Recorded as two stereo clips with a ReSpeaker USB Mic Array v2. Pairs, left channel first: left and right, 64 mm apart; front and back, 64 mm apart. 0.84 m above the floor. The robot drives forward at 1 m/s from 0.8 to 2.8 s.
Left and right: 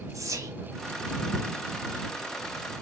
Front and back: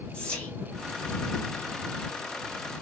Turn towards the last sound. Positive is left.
turn(degrees=-165)